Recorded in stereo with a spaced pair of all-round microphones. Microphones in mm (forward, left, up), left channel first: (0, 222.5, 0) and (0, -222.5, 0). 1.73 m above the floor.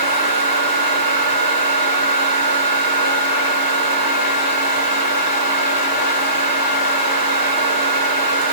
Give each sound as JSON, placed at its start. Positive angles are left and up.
{"t": 0.0, "sound": "a fan", "side_deg": -55, "distance_m": 1.9}